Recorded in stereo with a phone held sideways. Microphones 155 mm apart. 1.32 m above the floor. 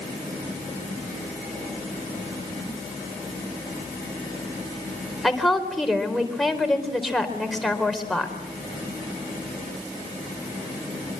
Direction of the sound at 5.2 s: Centre (ahead or behind).